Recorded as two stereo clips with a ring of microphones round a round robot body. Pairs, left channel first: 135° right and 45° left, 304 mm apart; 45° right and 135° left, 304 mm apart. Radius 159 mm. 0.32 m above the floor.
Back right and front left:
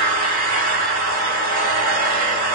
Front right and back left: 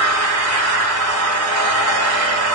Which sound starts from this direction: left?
An engine running, at 0.0 s.